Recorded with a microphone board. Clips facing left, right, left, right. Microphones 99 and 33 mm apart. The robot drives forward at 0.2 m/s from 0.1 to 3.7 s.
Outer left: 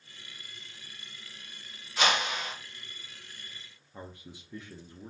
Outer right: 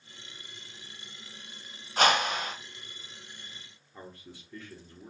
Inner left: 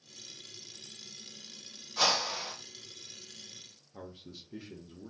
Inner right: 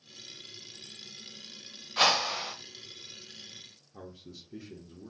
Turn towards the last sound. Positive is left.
turn(degrees=15)  # may be behind; listen again after turning